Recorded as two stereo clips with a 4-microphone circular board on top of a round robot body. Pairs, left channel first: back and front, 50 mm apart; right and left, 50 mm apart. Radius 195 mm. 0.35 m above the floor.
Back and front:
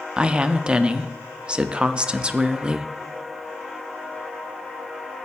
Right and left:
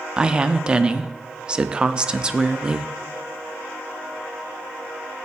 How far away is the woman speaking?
About 0.9 m.